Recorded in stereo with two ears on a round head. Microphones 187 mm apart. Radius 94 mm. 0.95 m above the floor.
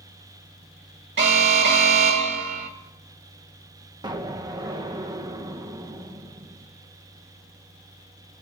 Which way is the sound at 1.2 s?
55° right (ahead or behind).